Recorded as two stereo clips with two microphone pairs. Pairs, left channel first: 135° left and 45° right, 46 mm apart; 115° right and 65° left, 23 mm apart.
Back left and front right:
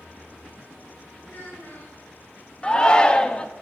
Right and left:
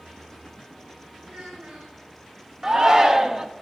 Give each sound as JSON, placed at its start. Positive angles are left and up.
{"t": 1.2, "sound": "a child speaking", "azimuth_deg": 85, "distance_m": 3.5}
{"t": 2.6, "sound": "a shout", "azimuth_deg": 85, "distance_m": 0.9}